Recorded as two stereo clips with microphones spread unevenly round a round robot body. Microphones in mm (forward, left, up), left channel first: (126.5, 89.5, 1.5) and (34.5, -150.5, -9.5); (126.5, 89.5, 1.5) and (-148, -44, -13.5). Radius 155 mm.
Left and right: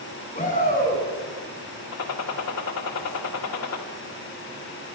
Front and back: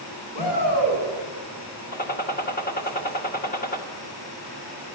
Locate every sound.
0.3 s a shout: 10° left, 8 m
1.9 s a gunshot: 85° left, 1.5 m